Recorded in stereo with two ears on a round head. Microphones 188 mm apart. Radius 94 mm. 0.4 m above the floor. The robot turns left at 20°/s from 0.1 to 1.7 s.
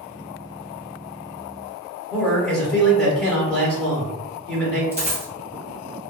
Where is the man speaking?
5° left (ahead or behind), 0.9 m.